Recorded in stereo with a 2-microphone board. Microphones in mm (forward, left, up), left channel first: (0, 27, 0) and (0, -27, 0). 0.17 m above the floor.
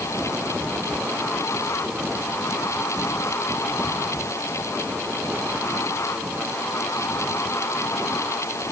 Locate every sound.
Only background noise.